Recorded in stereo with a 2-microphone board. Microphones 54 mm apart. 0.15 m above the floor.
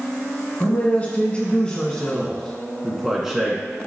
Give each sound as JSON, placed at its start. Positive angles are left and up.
{"t": 0.6, "sound": "a man speaking", "side_deg": 35, "distance_m": 1.6}